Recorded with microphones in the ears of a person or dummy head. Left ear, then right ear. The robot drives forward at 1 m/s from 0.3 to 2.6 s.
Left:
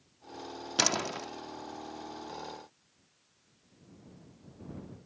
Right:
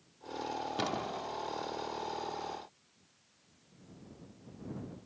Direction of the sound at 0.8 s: 65° left (ahead or behind).